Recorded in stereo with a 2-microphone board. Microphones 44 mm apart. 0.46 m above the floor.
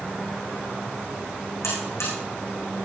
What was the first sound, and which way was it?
A buzzer, 75° left (ahead or behind).